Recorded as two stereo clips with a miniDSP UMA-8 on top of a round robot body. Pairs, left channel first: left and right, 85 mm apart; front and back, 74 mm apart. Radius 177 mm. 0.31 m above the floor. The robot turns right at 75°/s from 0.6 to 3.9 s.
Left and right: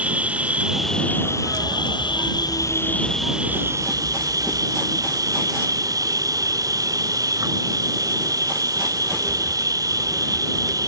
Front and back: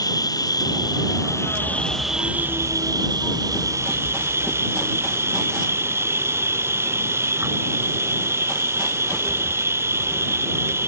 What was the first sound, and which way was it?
An insect, 20° right.